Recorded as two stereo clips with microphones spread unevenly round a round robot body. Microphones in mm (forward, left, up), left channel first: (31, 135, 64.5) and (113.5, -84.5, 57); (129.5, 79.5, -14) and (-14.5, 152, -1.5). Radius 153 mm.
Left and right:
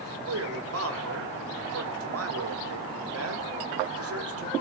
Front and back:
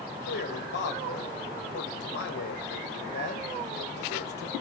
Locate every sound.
0.3 s a man speaking: 60° right, 3 m